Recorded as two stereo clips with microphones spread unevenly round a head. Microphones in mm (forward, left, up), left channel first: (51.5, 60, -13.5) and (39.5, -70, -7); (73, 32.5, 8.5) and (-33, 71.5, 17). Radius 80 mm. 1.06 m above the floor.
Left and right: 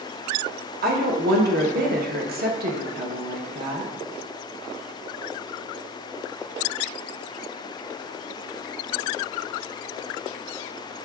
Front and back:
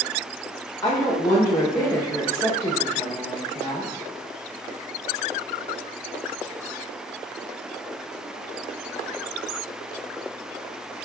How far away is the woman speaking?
About 0.8 m.